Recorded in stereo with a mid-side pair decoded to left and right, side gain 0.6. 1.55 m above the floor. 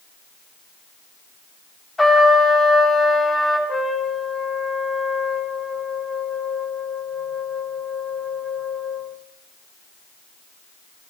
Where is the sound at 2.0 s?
15° left, 6.5 m.